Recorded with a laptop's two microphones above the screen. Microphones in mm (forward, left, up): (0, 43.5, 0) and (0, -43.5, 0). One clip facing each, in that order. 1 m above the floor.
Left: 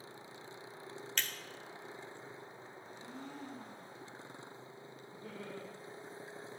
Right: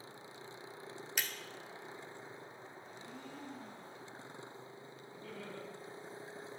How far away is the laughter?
About 1.5 m.